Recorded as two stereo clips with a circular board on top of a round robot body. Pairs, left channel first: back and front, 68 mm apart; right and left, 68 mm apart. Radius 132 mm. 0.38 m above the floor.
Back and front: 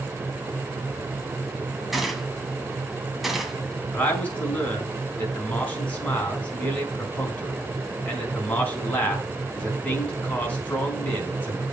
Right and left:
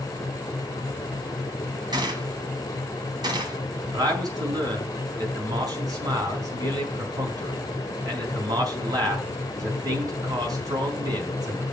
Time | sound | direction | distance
1.9 | a gunshot | 85° left | 1.7 m
3.9 | a man speaking | 110° left | 4.5 m